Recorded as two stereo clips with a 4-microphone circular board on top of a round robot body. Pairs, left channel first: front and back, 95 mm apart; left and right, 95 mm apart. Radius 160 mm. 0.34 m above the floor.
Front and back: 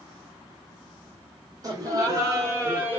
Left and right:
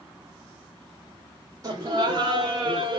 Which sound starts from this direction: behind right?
Laughter, at 1.6 s.